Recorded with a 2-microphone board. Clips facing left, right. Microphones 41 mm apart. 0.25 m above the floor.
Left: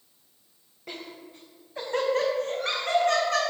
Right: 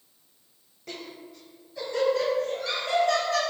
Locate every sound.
0.9 s laughter: 20° left (ahead or behind), 0.9 m; by 3.4 s 60° left (ahead or behind), 2 m